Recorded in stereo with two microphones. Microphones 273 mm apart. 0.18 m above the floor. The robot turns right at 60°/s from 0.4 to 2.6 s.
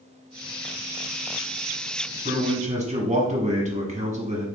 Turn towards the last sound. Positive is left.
turn(degrees=-25)  # may be behind; listen again after turning